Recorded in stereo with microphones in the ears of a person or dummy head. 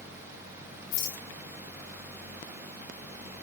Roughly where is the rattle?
Left.